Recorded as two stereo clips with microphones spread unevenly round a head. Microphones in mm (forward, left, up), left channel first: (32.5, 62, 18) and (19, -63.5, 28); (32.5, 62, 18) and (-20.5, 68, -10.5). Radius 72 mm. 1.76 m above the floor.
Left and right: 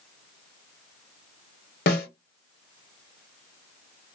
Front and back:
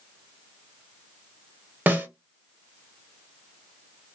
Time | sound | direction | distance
1.9 | a snare drum | 100° left | 1.4 m